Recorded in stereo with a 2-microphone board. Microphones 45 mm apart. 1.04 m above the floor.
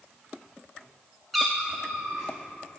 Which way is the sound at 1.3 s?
Centre (ahead or behind).